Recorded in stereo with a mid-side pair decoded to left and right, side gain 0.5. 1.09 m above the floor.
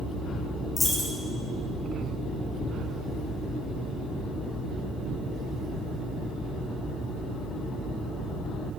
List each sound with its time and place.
0.8 s a dropped coin: 20° left, 2 m